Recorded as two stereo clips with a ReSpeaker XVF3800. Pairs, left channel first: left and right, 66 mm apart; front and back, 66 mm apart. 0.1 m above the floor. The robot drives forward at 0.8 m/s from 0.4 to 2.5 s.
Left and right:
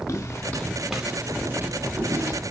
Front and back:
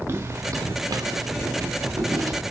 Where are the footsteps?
130° left, 0.7 m; by 2.4 s 140° right, 1.7 m.